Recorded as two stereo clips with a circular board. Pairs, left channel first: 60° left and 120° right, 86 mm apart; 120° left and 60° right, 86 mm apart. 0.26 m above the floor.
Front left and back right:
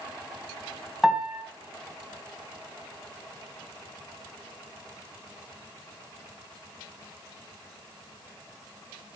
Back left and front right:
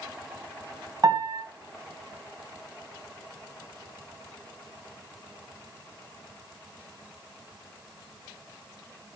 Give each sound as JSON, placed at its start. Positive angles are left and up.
{"t": 1.0, "sound": "a piano", "azimuth_deg": -35, "distance_m": 1.8}